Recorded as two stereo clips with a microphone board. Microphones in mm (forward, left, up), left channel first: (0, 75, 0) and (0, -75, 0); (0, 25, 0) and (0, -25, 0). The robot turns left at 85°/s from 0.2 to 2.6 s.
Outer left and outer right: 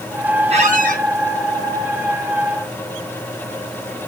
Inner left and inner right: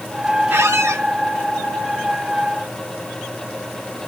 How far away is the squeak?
About 4.5 m.